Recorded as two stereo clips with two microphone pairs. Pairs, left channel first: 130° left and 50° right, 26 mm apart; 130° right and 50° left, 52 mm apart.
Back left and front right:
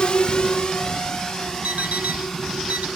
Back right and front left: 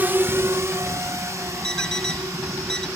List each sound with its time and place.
0.0 s a drone: 85° left; by 3.0 s 50° left
1.6 s an alarm clock: 55° right